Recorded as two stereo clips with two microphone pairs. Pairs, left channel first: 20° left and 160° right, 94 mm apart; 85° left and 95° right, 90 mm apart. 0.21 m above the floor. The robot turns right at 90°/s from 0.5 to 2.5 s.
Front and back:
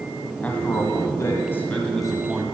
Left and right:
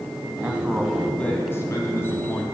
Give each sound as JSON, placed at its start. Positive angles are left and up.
{"t": 0.4, "sound": "a man speaking", "azimuth_deg": -35, "distance_m": 1.6}